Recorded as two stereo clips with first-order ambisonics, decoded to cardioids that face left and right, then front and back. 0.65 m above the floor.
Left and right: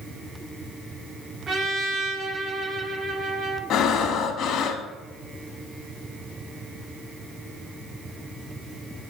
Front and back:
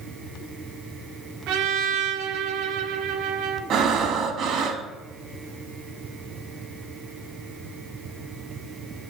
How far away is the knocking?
I don't hear knocking.